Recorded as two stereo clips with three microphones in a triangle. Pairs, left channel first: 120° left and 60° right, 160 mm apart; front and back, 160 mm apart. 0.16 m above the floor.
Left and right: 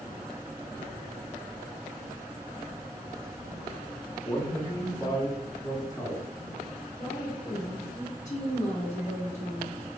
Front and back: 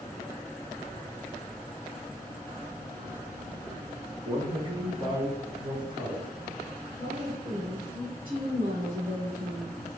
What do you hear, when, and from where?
4.2 s a man speaking: 160° left, 1.4 m
7.0 s a woman speaking: 135° left, 1.8 m